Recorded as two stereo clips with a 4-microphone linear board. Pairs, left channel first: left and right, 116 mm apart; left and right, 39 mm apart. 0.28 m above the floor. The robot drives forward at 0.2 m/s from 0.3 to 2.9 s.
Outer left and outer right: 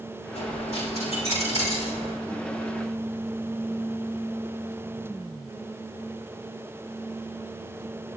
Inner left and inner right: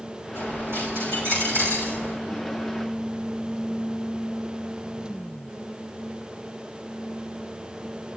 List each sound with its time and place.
0.3 s a dropped coin: 70° right (ahead or behind), 7 m; by 2.1 s 65° right (ahead or behind), 7 m